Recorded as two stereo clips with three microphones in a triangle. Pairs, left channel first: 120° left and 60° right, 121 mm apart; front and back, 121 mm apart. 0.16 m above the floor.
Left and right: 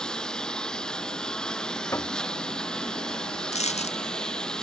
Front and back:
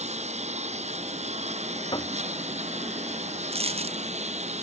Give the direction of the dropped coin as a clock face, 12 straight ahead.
7 o'clock.